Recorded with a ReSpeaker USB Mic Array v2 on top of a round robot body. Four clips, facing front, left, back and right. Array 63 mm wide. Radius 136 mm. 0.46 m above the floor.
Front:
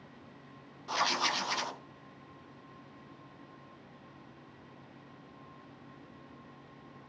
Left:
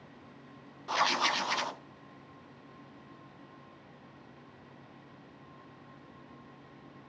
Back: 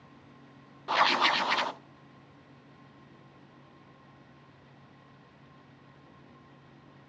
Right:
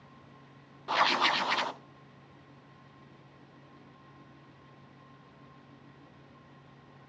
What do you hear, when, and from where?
0.9 s writing: 160° right, 0.9 m